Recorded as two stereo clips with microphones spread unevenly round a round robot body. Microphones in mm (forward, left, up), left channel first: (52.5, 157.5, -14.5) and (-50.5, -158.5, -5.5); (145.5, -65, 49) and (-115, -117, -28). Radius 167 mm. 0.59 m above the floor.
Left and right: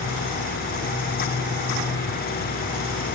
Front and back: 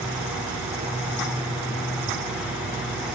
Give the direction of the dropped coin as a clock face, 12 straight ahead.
I don't hear a dropped coin.